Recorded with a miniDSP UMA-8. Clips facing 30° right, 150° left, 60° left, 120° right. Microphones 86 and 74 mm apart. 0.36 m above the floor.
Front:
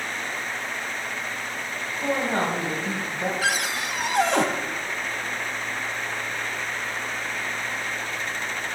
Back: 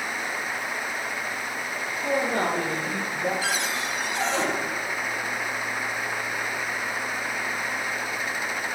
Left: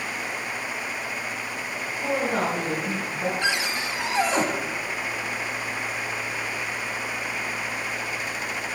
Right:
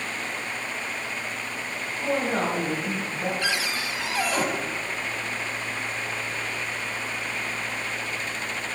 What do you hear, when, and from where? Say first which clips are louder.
2.0 s a woman speaking: front 1 dB, even; 25° right, 2.5 m
3.4 s a cupboard door: front 2 dB, left 2 dB; 5° right, 0.8 m